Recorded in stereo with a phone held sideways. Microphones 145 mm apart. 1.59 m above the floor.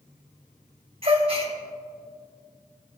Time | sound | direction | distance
1.0 | a gasp | 45° right (ahead or behind) | 2 m